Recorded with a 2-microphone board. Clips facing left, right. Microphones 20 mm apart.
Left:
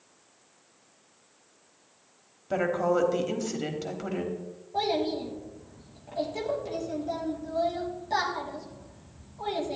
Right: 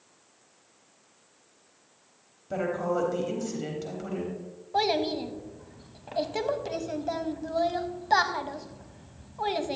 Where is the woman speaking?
20° left (ahead or behind), 1.1 m.